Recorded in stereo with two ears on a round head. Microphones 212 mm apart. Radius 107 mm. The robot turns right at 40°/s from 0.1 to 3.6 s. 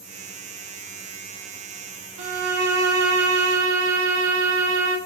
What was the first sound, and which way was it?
A violin, 120° right.